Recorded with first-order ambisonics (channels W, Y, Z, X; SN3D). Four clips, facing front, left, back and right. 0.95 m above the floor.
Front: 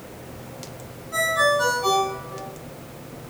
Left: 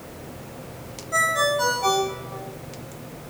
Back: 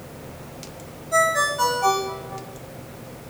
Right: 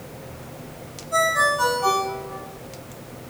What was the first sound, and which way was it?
A ringtone, 170° right.